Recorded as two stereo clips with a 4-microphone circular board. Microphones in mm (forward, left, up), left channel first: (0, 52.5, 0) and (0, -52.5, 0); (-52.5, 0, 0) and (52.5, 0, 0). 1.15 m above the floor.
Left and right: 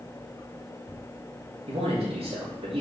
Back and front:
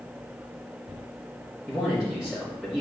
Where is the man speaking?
85° right, 3.5 m.